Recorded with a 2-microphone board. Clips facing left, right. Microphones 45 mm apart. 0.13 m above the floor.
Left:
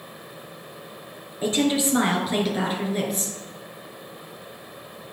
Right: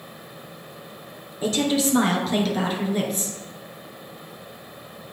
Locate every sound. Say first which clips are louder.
1.4 s a woman speaking: even; 25° left (ahead or behind), 2.5 m; by 3.4 s centre (ahead or behind), 2.5 m